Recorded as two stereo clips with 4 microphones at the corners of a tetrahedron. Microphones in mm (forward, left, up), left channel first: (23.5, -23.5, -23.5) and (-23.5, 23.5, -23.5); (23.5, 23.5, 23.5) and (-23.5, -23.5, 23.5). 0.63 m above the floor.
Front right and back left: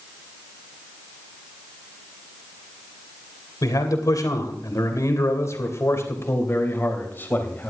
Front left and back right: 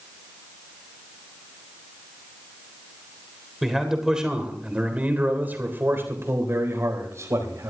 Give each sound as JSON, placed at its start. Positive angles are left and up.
{"t": 3.6, "sound": "a man speaking", "azimuth_deg": -50, "distance_m": 3.0}